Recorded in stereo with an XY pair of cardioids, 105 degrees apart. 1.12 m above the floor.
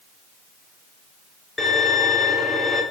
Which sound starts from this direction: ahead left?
A violin, at 1.6 s.